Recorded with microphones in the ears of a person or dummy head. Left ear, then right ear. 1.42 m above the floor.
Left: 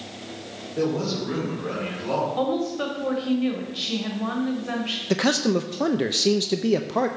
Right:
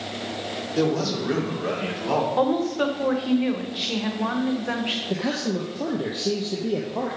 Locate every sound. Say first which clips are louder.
0.8 s a man speaking: right 1 dB; 85° right, 3.5 m; by 2.3 s 70° right (ahead or behind), 4 m
2.4 s a woman speaking: right 3 dB; 15° right (ahead or behind), 1.3 m
5.1 s a man speaking: left 5 dB; 65° left (ahead or behind), 0.6 m